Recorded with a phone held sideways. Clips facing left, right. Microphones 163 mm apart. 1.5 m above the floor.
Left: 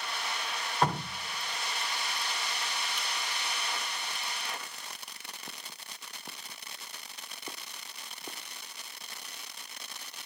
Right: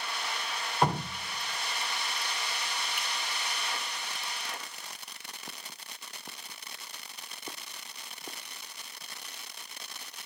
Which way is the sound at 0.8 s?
10° right (ahead or behind).